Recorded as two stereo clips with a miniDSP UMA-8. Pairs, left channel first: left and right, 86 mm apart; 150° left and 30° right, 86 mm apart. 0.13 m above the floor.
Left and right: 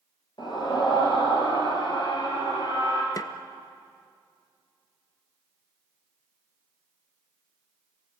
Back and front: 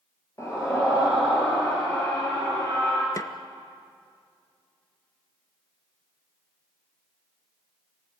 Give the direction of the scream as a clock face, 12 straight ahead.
9 o'clock.